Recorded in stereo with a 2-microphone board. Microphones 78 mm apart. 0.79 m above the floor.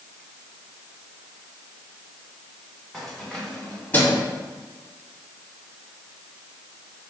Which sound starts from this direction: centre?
Keys jangling, at 2.9 s.